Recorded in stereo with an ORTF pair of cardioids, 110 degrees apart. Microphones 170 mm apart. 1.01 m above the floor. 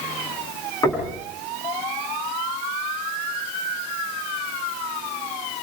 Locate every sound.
0.8 s knocking: 20° left, 9 m